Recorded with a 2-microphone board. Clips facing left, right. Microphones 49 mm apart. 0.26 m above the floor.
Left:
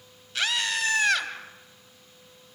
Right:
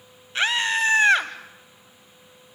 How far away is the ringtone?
I don't hear a ringtone.